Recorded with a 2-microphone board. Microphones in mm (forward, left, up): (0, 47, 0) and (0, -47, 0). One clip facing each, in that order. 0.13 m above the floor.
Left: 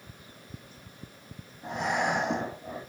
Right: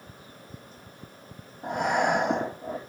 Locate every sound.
1.6 s breathing: 55° right (ahead or behind), 2 m